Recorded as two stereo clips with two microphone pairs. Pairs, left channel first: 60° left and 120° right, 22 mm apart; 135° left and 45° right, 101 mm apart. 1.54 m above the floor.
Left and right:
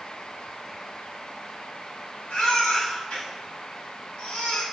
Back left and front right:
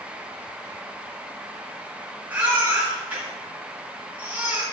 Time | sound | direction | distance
2.3 | a baby crying | 30° left | 7.5 m